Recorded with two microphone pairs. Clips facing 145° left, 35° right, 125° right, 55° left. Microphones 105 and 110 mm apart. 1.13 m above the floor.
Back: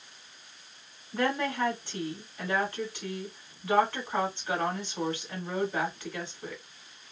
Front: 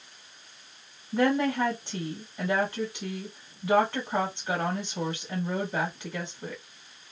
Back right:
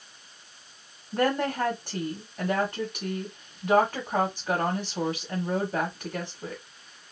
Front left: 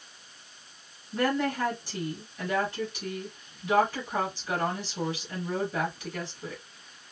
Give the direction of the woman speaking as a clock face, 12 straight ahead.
3 o'clock.